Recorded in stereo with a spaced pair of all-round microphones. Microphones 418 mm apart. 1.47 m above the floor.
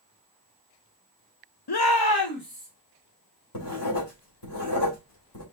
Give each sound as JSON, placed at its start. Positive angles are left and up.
{"t": 1.7, "sound": "a shout", "side_deg": 65, "distance_m": 0.6}
{"t": 3.5, "sound": "writing", "side_deg": 75, "distance_m": 2.5}